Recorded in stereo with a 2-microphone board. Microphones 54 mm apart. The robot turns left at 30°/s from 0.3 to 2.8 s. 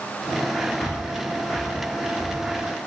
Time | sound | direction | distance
0.8 | breathing | 55° left (ahead or behind) | 2 m